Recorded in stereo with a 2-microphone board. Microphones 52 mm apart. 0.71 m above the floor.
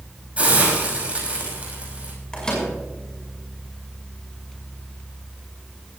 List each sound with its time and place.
0.4 s a hiss: 25° right (ahead or behind), 6 m
2.3 s a microwave: 15° left (ahead or behind), 5.5 m